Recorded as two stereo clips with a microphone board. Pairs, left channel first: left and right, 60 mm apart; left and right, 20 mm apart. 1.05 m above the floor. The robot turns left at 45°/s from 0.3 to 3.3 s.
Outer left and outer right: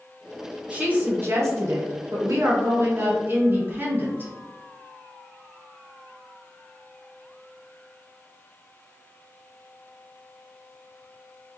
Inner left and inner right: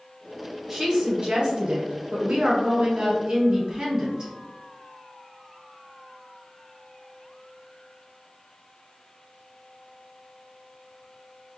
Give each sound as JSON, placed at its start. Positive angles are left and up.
{"t": 0.7, "sound": "a woman speaking", "azimuth_deg": -25, "distance_m": 1.4}